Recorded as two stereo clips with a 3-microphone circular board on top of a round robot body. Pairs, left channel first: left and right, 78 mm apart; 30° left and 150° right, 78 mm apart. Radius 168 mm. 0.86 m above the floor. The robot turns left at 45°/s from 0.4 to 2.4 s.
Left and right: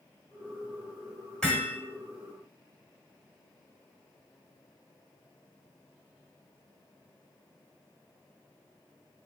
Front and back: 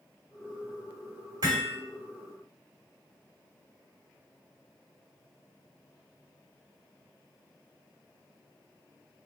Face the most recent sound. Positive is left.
turn(degrees=130)